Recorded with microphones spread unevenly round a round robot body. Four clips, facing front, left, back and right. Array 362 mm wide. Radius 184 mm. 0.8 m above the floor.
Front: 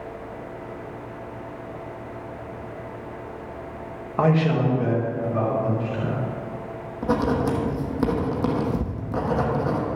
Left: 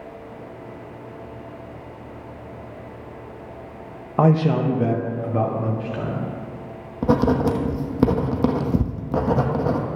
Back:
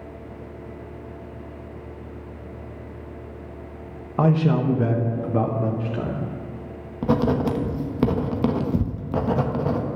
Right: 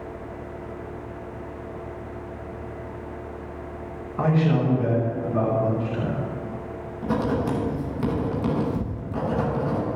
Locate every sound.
4.2 s a man speaking: 105° left, 1.0 m; by 6.3 s straight behind, 2.5 m
7.0 s writing: 105° left, 1.3 m